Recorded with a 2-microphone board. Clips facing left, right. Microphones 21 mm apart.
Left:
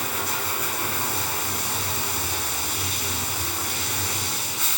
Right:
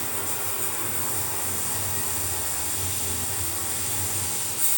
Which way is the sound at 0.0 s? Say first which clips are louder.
Left 6 dB; 50° left (ahead or behind).